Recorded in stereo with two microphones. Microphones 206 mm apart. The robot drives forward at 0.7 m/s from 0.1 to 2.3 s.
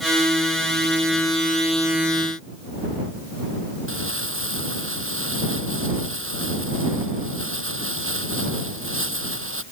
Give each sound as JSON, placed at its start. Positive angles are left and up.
{"t": 3.9, "sound": "crumpling", "side_deg": -70}